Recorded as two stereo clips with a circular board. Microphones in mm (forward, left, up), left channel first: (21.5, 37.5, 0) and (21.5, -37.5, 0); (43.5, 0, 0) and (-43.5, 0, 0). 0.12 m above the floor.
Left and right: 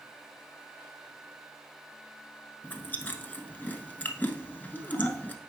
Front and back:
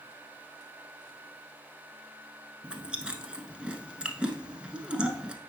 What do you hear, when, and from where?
2.6 s chewing: 115° left, 0.8 m